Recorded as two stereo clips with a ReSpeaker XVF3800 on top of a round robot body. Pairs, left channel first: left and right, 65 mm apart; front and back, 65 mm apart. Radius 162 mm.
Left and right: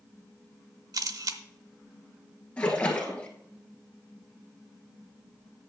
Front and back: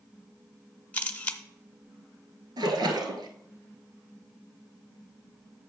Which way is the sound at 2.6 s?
160° left.